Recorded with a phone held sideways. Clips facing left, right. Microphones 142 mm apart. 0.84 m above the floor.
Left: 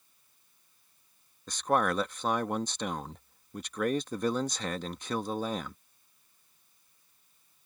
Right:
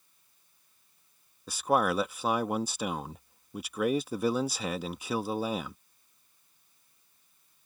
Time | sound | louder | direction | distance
1.5 | a man speaking | right 1 dB | 5° right (ahead or behind) | ?